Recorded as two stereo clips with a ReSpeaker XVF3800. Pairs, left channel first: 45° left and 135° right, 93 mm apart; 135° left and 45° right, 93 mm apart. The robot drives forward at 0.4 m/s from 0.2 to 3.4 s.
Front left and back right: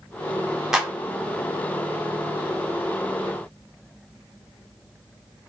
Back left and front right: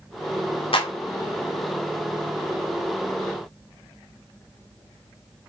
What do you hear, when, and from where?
0.7 s a clap: 140° left, 0.9 m; by 0.9 s 145° left, 0.9 m